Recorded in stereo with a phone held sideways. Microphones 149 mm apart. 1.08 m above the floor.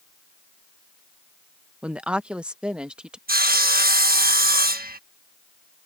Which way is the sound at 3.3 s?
85° right.